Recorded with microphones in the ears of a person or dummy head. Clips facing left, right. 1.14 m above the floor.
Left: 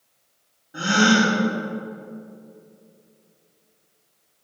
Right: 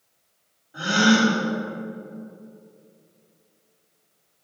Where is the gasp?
35° left (ahead or behind), 2.5 m.